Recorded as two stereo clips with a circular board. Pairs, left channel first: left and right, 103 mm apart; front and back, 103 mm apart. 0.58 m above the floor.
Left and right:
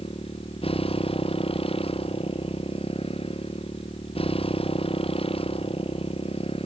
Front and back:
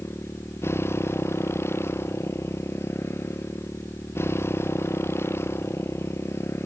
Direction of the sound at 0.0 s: 65° left.